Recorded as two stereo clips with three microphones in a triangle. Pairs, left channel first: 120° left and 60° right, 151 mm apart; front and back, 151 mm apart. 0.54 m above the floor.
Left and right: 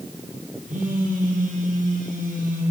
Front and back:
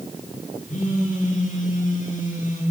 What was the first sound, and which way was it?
A phone buzzing, 30° right.